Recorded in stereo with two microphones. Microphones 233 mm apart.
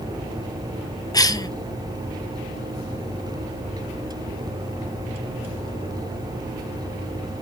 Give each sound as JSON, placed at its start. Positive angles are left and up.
{"t": 1.1, "sound": "a cough", "side_deg": 15, "distance_m": 0.6}